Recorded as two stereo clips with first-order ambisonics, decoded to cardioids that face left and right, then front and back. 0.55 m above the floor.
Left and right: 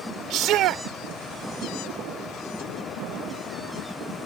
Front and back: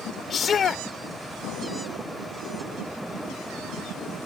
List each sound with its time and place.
0.3 s a shout: 60° right